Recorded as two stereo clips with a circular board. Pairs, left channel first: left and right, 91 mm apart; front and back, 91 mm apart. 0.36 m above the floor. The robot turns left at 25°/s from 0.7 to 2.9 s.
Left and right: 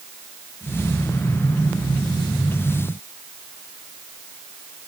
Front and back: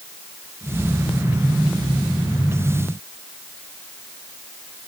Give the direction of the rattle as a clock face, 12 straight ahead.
No rattle in this recording.